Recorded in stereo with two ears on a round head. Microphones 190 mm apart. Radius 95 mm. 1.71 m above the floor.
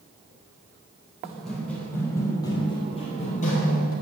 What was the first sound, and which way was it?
Running footsteps, centre (ahead or behind).